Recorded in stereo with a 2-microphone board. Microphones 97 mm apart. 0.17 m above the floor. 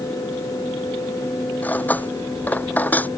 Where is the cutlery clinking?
15° left (ahead or behind).